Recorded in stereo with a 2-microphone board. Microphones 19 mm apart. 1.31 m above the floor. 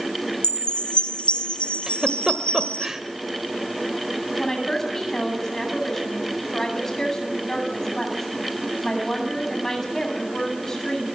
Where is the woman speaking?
20° left (ahead or behind), 8.5 m.